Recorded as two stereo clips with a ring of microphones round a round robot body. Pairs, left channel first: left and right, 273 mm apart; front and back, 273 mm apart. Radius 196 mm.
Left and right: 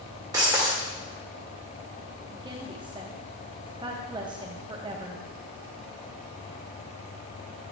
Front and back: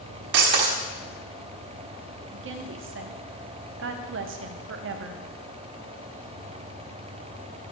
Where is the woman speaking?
160° right, 0.7 m.